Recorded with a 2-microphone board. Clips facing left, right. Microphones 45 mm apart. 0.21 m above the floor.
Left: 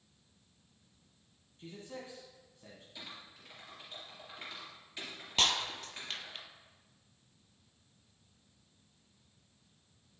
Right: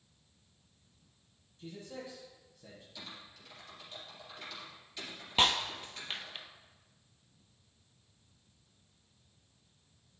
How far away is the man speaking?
About 1.7 m.